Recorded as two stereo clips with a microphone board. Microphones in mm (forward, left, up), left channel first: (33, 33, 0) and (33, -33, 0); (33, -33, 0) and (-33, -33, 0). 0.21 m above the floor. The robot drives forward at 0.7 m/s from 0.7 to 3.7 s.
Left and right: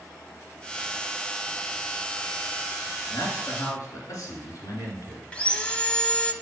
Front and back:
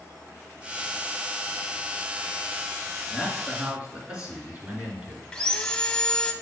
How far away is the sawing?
About 0.6 m.